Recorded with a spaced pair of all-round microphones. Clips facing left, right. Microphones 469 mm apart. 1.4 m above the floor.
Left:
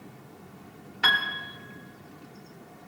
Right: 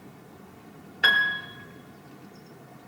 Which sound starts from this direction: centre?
A piano, at 1.0 s.